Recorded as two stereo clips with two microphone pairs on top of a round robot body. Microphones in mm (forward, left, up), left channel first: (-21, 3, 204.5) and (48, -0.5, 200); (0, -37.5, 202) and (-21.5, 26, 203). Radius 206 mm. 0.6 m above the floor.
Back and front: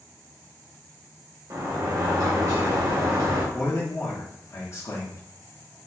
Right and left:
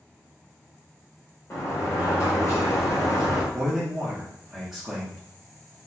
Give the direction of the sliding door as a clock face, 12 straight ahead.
1 o'clock.